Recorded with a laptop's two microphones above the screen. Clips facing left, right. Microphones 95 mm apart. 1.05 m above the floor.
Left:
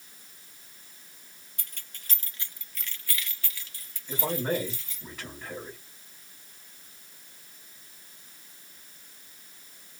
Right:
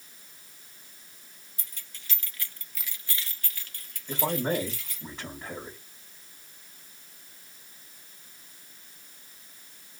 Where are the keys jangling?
55° left (ahead or behind), 1.2 m; by 5.0 s 65° right (ahead or behind), 2 m.